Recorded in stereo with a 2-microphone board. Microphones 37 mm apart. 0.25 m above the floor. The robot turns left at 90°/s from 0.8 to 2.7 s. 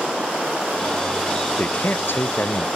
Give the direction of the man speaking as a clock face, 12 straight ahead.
7 o'clock.